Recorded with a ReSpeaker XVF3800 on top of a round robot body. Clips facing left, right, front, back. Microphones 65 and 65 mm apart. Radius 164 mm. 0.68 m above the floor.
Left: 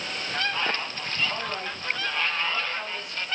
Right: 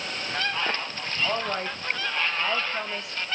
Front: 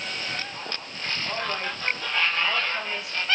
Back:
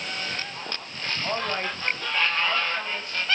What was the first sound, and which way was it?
A woman speaking, 125° right.